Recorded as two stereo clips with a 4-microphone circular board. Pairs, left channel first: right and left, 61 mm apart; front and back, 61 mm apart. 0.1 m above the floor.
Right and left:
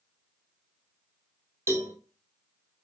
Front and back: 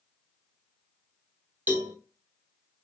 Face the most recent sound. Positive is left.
turn(degrees=120)